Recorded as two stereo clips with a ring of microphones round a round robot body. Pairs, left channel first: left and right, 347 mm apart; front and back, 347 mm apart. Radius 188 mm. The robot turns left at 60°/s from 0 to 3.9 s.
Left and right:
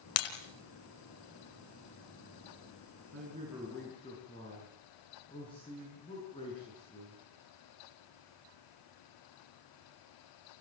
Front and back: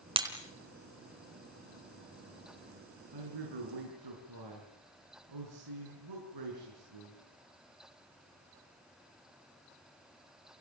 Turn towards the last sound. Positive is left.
turn(degrees=170)